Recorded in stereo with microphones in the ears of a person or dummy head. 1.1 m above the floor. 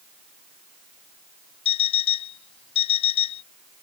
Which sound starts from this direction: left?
An alarm clock, at 1.6 s.